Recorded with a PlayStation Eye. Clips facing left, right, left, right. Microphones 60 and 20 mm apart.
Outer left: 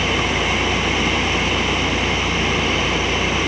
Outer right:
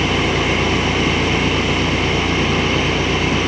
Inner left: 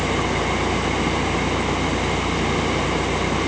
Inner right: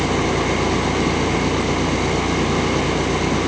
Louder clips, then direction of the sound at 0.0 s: Outer right 2 dB, inner right 2 dB; 75° right (ahead or behind).